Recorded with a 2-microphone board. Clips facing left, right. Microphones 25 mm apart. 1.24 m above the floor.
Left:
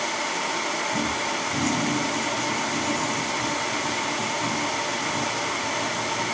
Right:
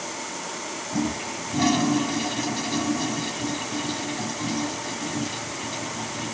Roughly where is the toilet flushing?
Right.